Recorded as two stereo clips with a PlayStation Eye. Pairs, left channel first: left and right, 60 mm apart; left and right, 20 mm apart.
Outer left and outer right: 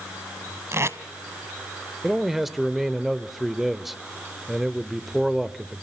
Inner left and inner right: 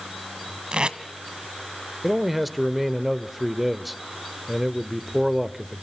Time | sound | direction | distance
0.7 | tape being pulled | 50° right (ahead or behind) | 1.2 m
2.0 | a man speaking | 5° right (ahead or behind) | 1.0 m